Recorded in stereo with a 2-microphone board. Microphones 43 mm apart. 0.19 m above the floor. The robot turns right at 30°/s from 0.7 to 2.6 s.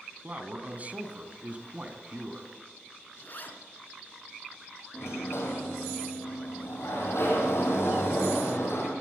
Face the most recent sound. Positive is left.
turn(degrees=75)  # may be behind; listen again after turning